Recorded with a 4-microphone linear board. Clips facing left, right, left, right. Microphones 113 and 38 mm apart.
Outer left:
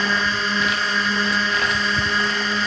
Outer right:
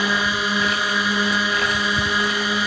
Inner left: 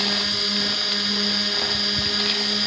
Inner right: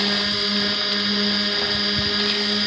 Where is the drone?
10° right (ahead or behind).